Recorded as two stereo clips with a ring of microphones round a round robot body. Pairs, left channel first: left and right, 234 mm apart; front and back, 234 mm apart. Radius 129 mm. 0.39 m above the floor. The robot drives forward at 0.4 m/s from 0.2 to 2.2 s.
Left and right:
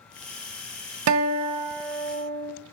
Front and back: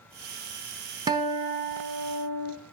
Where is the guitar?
105° right, 0.6 m; by 2.5 s 135° right, 0.8 m.